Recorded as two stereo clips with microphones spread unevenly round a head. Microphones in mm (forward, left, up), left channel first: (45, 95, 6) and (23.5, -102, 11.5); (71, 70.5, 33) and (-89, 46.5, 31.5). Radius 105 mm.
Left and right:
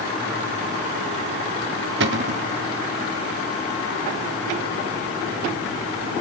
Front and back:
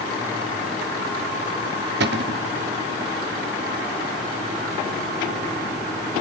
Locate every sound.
2.0 s a cupboard door: 140° right, 0.7 m